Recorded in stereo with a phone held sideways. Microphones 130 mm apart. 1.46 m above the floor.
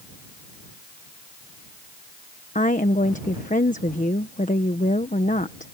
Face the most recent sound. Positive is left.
turn(degrees=75)  # may be behind; listen again after turning